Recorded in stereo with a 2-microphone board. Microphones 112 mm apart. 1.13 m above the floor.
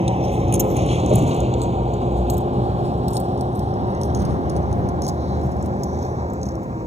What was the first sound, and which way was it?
A vehicle, 65° right (ahead or behind).